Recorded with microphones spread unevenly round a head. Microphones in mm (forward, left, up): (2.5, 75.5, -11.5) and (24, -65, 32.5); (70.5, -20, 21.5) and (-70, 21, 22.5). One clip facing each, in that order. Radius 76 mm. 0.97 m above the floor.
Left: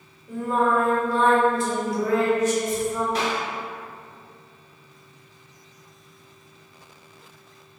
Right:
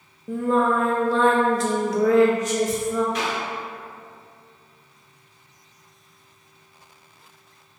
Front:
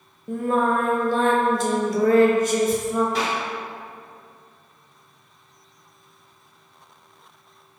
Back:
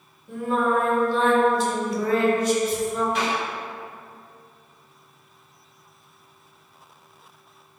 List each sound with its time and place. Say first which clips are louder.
0.3 s singing: right 2 dB, front 1 dB; 55° right, 0.9 m
3.1 s a clap: left 1 dB, even; 40° left, 2.0 m